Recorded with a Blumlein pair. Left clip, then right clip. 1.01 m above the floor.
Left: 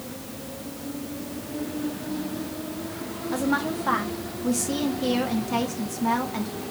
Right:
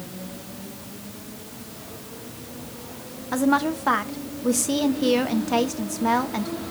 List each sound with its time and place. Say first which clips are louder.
3.3 s a woman speaking: right 4 dB; 15° right, 1.9 m